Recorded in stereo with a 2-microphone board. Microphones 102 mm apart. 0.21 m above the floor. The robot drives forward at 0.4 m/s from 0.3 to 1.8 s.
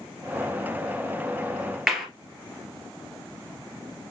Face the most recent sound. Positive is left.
turn(degrees=-5)  # may be behind; listen again after turning